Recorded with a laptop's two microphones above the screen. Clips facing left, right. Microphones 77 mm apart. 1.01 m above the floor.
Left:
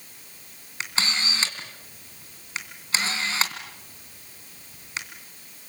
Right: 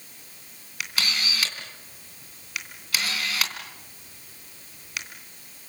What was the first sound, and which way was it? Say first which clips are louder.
A camera shutter: left 1 dB; 30° left (ahead or behind).